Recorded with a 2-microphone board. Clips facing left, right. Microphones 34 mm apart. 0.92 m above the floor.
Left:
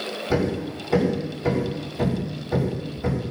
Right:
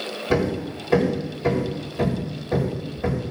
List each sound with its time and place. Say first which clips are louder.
0.3 s hammering: right 2 dB; 85° right, 3.5 m